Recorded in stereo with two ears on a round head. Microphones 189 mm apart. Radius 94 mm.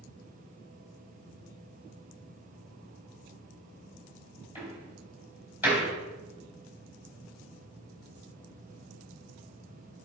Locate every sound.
4.5 s a door slam: 10° right (ahead or behind), 4 m